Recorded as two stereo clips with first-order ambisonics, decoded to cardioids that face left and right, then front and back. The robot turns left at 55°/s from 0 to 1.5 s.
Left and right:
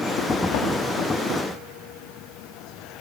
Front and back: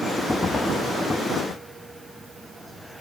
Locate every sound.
0.5 s knocking: 75° left, 2.5 m; by 0.8 s 60° left, 2.5 m